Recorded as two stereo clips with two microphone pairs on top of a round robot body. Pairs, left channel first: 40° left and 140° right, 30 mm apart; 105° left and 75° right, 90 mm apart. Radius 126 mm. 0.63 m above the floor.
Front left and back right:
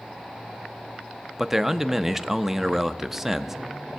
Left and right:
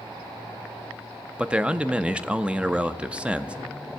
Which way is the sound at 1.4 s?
75° right.